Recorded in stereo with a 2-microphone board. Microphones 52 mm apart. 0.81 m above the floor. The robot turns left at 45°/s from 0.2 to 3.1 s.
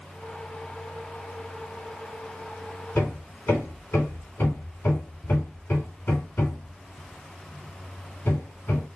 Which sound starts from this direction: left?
Hammering, at 3.0 s.